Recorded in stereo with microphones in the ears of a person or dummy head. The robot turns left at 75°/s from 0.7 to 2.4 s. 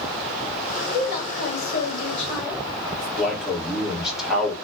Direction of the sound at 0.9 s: 115° left.